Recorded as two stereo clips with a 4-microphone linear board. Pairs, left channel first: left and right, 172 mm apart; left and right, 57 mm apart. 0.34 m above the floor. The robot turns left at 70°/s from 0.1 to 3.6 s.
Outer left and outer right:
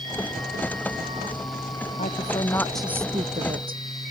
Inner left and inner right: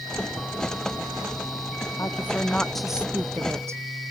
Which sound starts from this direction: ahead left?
A woman speaking, at 2.0 s.